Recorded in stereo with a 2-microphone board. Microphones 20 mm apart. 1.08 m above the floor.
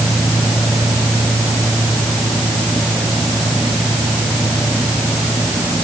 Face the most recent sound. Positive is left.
No sound to turn to.